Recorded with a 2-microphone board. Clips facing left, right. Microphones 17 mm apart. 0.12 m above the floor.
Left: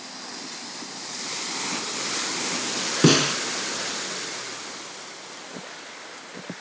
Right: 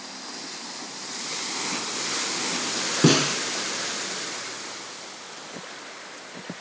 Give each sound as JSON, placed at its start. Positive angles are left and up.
{"t": 3.0, "sound": "a snare drum", "side_deg": 15, "distance_m": 0.9}